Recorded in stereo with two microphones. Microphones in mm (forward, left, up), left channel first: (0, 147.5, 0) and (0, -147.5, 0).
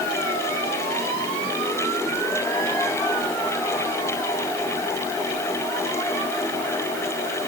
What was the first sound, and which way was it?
Only background noise.